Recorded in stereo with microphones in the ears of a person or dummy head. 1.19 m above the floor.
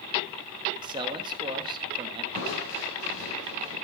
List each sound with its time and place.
0.8 s a man speaking: 25° right (ahead or behind), 1.2 m
2.3 s crushing: 75° left (ahead or behind), 7 m